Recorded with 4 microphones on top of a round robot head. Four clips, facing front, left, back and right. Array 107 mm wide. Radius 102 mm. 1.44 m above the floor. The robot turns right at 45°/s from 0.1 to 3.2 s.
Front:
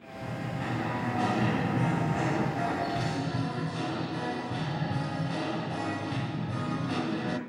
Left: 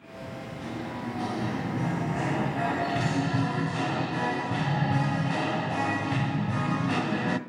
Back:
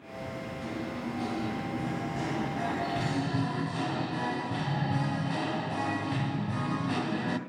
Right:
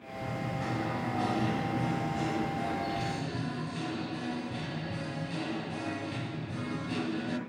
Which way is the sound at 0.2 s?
45° right.